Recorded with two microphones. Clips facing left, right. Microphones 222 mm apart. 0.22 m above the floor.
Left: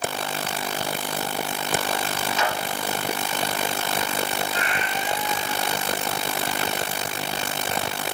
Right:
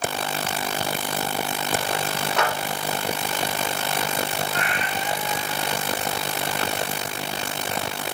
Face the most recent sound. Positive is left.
turn(degrees=-65)  # may be behind; listen again after turning